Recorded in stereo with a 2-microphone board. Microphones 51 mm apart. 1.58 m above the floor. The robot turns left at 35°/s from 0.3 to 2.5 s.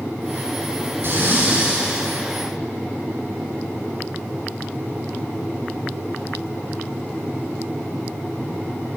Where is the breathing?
130° right, 6.5 m; by 2.1 s 165° right, 6.5 m.